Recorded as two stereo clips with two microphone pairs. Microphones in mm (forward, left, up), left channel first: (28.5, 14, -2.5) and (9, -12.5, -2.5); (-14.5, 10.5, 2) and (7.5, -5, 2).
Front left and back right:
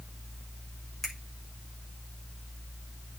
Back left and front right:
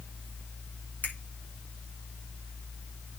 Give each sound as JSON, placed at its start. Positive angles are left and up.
{"t": 1.0, "sound": "a finger snap", "azimuth_deg": 135, "distance_m": 7.0}